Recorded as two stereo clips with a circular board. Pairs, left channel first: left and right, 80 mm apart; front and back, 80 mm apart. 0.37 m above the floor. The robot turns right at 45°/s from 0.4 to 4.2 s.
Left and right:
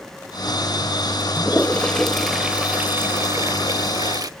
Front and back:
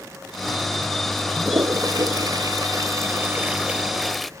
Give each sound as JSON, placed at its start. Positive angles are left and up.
{"t": 1.4, "sound": "a toilet flushing", "azimuth_deg": 145, "distance_m": 0.8}